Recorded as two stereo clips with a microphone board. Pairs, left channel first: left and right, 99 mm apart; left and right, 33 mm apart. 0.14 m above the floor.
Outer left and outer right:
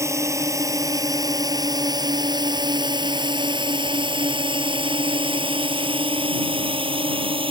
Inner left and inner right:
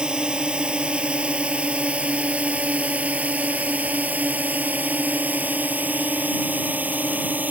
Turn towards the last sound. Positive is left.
turn(degrees=-65)  # may be behind; listen again after turning